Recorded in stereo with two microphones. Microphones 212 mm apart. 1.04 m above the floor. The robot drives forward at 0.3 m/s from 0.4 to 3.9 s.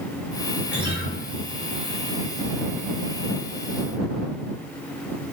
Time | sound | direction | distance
0.7 | a guitar | 50° left (ahead or behind) | 1.0 m